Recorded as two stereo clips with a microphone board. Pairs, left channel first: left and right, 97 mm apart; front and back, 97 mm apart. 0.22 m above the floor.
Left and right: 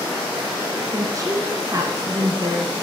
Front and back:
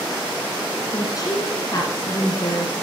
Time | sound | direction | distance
0.9 | a woman speaking | 45° right | 1.9 m